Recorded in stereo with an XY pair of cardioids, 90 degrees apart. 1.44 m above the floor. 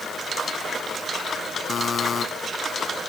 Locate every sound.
1.7 s a buzzer: 55° left